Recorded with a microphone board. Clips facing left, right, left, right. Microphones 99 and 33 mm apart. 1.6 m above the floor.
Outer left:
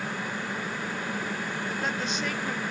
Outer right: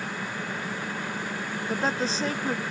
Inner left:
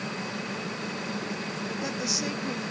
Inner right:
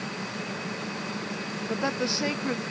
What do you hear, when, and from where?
1.7 s a woman speaking: 35° right (ahead or behind), 0.6 m